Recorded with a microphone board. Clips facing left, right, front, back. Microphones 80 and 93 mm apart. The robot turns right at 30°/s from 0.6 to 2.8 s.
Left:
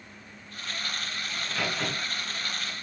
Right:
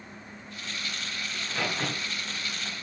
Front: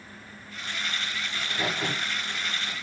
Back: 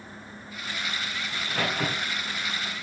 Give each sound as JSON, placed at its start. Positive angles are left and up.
{"t": 1.3, "sound": "a crack", "azimuth_deg": 175, "distance_m": 6.5}